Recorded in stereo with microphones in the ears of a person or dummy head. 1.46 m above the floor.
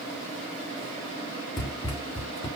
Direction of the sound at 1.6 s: 25° left (ahead or behind).